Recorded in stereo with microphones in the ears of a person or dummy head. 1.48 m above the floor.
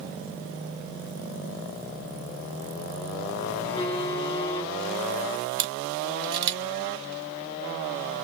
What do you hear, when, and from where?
3.6 s a phone buzzing: 30° left (ahead or behind), 1.1 m
5.6 s a camera shutter: 55° right (ahead or behind), 1.8 m